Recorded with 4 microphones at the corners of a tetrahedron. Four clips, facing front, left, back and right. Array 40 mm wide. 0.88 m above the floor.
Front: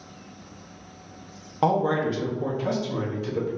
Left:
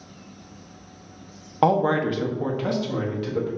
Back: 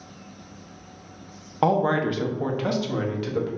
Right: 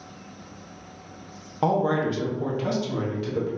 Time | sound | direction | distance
1.6 | a man speaking | 115° left | 0.6 m